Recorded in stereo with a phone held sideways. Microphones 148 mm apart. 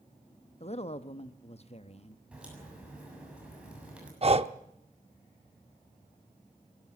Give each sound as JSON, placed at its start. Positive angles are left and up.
{"t": 0.6, "sound": "a woman speaking", "side_deg": 45, "distance_m": 1.0}
{"t": 2.3, "sound": "a crack", "side_deg": -10, "distance_m": 7.0}
{"t": 4.2, "sound": "breathing", "side_deg": -45, "distance_m": 0.7}